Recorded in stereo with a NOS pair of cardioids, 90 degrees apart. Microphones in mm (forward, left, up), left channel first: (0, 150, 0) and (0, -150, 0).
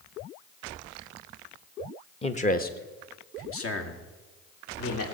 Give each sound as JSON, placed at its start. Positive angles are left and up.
{"t": 2.2, "sound": "a man speaking", "azimuth_deg": 20, "distance_m": 1.3}